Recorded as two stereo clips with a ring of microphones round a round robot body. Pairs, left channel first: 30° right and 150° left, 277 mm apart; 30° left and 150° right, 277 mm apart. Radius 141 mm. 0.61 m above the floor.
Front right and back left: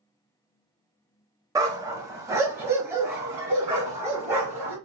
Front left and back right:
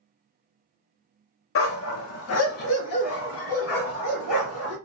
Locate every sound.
1.6 s a dog barking: 70° left, 0.6 m